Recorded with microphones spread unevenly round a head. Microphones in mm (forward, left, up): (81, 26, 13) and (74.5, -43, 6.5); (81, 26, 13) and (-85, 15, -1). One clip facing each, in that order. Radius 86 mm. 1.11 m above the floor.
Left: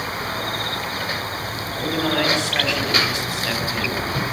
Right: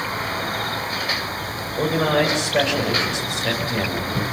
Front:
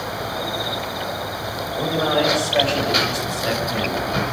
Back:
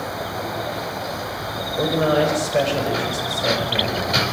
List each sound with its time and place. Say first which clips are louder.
1.8 s a man speaking: right 3 dB, back 2 dB; 120° right, 6.5 m; by 4.2 s 105° right, 7.5 m